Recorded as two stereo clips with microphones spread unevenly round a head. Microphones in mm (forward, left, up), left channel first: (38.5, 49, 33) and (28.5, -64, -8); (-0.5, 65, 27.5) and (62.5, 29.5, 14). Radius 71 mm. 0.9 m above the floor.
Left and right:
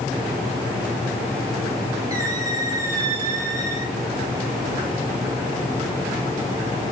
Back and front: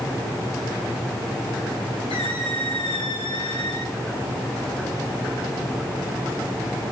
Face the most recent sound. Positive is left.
turn(degrees=-165)